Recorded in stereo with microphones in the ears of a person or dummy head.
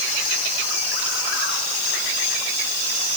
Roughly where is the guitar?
No guitar in this recording.